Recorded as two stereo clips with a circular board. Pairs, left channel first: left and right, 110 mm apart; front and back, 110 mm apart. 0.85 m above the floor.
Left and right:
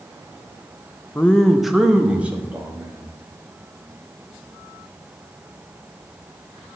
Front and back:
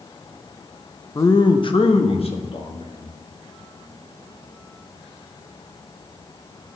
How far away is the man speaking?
About 0.5 m.